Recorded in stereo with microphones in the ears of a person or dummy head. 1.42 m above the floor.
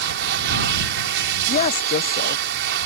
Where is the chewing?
I don't hear chewing.